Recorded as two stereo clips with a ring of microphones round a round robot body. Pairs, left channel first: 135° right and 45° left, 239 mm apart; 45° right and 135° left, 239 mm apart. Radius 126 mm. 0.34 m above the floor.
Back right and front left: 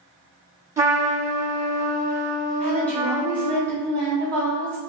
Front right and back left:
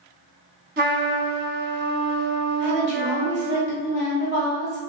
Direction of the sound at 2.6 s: 150° left.